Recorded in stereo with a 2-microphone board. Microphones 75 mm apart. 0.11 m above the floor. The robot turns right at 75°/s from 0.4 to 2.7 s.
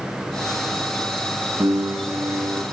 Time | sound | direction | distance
1.6 | a piano | 115° right | 5 m